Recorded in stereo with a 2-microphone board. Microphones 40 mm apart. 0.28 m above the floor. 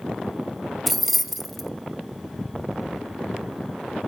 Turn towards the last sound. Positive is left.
turn(degrees=5)  # may be behind; listen again after turning